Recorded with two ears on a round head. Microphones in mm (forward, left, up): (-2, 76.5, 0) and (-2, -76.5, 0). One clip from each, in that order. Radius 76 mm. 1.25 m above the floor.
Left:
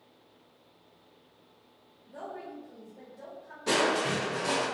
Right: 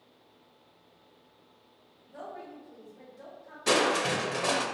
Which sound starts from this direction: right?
Crushing, at 3.7 s.